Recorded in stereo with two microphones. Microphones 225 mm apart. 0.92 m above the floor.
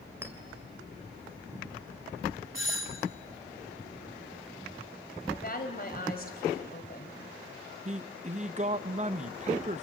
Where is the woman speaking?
40° left (ahead or behind), 4 m.